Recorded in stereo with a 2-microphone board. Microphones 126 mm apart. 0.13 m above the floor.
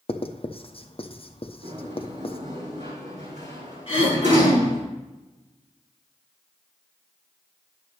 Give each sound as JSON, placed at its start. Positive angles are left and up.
{"t": 0.1, "sound": "writing", "side_deg": 50, "distance_m": 0.8}
{"t": 1.6, "sound": "a sliding door", "side_deg": -65, "distance_m": 4.0}
{"t": 3.9, "sound": "throat clearing", "side_deg": 45, "distance_m": 4.0}